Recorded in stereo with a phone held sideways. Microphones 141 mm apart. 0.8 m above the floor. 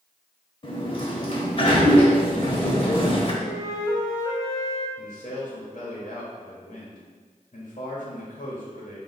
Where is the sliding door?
40° left (ahead or behind), 0.7 m.